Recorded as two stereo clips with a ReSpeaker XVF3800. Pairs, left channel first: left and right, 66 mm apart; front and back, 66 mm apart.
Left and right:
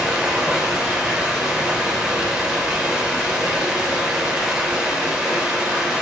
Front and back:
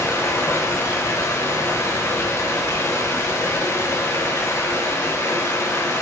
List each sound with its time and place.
0.0 s running water: 15° right, 0.8 m